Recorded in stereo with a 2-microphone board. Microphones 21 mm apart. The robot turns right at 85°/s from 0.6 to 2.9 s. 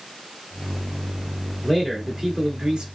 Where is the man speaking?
150° left, 1.8 m; by 2.9 s 110° right, 1.8 m.